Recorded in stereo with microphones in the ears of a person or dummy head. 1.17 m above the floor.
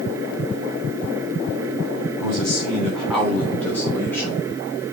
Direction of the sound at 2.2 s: 20° right (ahead or behind).